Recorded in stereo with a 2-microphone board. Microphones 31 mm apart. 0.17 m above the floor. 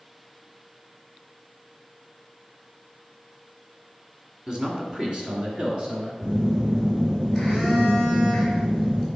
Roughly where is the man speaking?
Right.